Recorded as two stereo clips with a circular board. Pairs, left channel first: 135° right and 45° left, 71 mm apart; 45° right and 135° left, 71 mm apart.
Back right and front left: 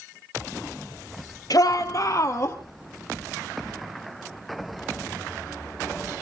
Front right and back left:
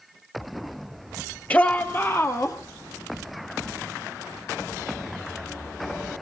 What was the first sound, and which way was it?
A shout, 110° right.